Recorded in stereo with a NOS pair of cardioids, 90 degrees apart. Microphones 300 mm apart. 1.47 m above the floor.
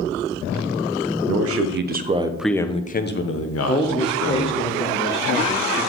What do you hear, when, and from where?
1.3 s a man speaking: 55° right, 1.1 m; by 4.7 s 65° left, 1.8 m
3.7 s a man speaking: 15° left, 0.9 m